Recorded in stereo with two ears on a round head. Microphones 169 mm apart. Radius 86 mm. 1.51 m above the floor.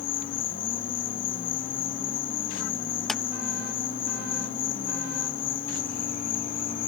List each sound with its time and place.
0.0 s an insect: 75° left (ahead or behind)
3.1 s a clap: centre (ahead or behind)